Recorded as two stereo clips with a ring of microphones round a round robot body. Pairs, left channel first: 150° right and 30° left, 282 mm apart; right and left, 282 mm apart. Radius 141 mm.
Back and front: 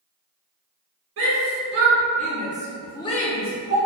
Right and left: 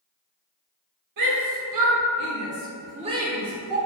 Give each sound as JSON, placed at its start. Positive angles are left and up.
{"t": 1.2, "sound": "a shout", "azimuth_deg": 75, "distance_m": 1.4}